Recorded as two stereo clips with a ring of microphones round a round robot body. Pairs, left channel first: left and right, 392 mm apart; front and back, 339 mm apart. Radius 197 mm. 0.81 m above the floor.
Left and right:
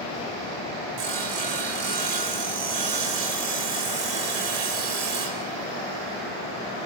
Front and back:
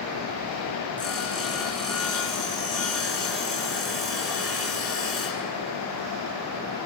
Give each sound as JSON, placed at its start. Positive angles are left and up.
{"t": 1.0, "sound": "sawing", "azimuth_deg": -95, "distance_m": 4.0}